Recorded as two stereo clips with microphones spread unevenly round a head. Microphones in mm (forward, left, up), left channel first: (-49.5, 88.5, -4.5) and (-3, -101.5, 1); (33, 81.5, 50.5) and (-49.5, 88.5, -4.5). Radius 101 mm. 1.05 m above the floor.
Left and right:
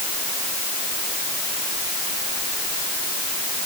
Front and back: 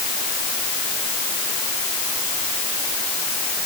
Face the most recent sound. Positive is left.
No sound to turn to.